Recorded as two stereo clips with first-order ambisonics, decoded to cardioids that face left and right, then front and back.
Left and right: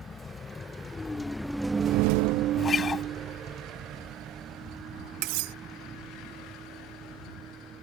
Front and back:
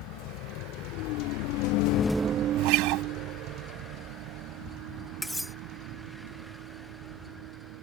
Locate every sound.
0.0 s a vehicle: 15° left; by 7.8 s 155° right
2.6 s a guitar: 160° left
5.2 s cutlery clinking: 85° right